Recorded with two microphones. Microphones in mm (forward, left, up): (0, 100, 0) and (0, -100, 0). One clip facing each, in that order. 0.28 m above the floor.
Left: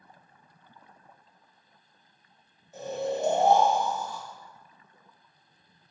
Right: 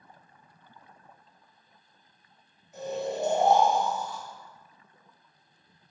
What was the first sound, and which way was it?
Snoring, 30° left (ahead or behind).